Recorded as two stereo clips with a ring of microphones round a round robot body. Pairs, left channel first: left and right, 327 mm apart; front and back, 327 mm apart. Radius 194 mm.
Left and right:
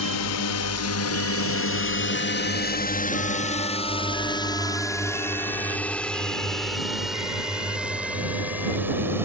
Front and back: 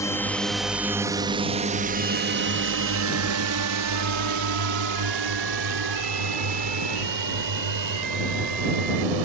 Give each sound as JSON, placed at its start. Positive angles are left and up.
{"t": 0.0, "sound": "a drone", "azimuth_deg": 80}